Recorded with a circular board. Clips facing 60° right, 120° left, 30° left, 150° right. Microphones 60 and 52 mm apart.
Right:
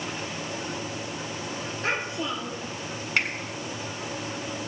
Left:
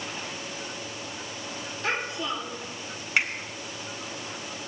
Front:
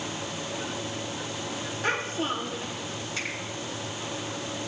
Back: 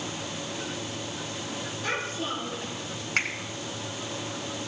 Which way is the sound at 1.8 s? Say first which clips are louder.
Even, front 3 dB; 10° right.